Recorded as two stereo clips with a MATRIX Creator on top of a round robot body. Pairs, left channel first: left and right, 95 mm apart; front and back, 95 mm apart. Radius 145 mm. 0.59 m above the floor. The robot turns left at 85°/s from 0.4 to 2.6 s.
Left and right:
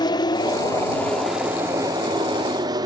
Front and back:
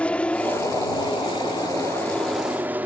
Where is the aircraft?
75° left; by 2.9 s 115° right.